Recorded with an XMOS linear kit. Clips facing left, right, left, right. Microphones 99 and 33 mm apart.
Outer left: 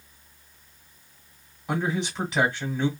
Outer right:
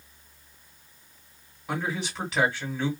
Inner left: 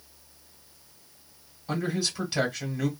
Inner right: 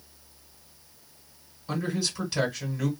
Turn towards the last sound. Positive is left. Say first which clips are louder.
# outer left 4 dB, inner left 1 dB
turn(degrees=15)  # may be behind; listen again after turning